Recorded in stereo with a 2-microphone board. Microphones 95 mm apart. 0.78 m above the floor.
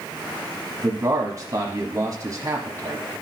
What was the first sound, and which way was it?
A man speaking, 35° right (ahead or behind).